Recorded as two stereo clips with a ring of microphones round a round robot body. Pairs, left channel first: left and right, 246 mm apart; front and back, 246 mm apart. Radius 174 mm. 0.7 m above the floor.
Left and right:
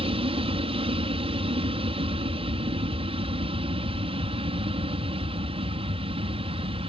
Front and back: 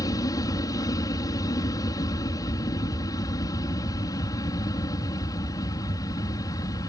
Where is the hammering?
No hammering in this recording.